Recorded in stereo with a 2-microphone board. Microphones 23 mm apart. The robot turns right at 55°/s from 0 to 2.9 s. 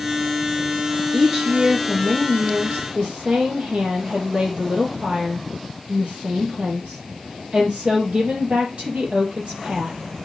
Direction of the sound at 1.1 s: 170° right.